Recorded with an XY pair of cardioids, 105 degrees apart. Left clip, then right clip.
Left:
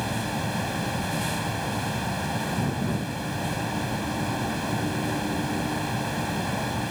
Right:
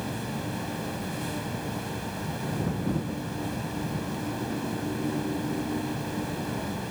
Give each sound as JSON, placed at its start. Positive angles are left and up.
{"t": 0.0, "sound": "a fan", "azimuth_deg": 50}